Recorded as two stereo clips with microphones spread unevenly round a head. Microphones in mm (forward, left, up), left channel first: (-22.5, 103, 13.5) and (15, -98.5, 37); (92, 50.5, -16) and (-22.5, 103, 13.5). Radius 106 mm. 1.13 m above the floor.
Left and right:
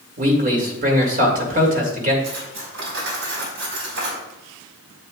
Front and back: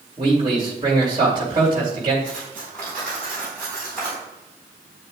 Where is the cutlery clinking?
115° right, 4.5 m.